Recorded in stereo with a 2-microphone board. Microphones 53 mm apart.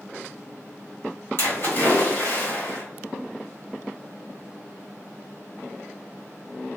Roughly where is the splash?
Left.